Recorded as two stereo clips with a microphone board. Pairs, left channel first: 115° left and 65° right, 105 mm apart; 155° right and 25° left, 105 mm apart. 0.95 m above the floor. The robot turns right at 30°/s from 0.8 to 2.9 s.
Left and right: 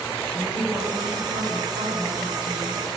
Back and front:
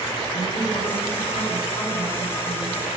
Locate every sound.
0.3 s a woman speaking: 145° right, 9 m; by 2.9 s 80° right, 9 m